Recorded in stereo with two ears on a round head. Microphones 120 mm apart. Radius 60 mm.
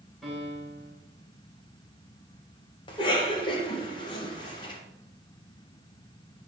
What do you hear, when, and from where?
0.2 s a piano: 5° left (ahead or behind), 3.5 m
2.9 s a cough: 35° left (ahead or behind), 1.6 m